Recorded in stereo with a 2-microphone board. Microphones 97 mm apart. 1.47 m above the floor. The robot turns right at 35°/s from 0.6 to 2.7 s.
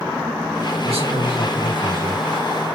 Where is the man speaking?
80° right, 2.5 m; by 2.2 s 35° right, 2.5 m.